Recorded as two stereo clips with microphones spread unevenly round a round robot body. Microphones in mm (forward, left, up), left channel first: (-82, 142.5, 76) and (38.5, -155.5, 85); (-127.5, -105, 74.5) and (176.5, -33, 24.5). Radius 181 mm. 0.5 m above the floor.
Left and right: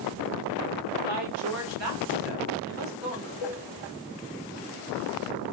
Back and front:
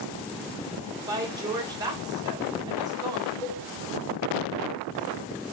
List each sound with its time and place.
1.1 s a woman speaking: 50° right, 1.3 m
3.4 s a cowbell: 95° left, 0.6 m